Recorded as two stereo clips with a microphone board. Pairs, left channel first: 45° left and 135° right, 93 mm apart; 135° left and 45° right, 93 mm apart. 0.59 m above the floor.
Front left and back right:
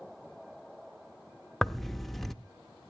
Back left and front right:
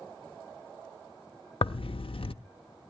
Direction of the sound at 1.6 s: 130° left.